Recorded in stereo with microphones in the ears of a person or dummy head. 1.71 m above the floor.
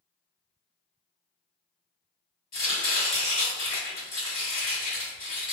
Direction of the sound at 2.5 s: 20° left (ahead or behind).